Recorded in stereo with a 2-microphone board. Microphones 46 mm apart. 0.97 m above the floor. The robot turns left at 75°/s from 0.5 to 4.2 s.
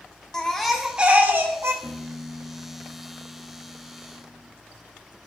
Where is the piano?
135° right, 0.7 m; by 4.5 s 45° left, 0.7 m.